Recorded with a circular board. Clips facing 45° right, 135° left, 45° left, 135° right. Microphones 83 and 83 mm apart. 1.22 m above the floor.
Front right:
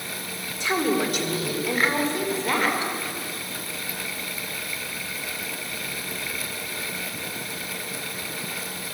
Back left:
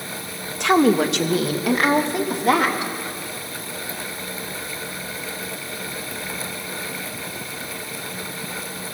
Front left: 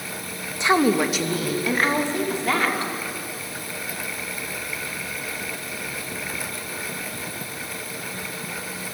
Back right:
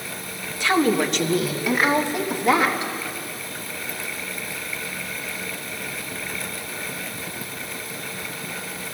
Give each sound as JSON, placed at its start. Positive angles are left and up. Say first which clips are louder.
{"t": 0.6, "sound": "a woman speaking", "louder": "back left 7 dB, front left 1 dB", "azimuth_deg": 115, "distance_m": 1.4}